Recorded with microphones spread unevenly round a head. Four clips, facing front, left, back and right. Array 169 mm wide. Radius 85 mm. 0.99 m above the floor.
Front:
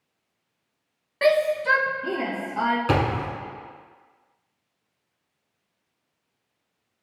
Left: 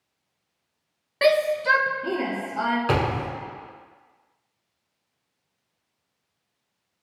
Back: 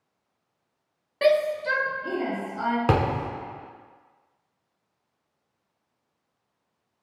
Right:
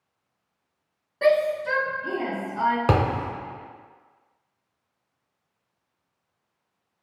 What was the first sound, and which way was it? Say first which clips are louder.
A shout: left 1 dB, front 1 dB; 145° left.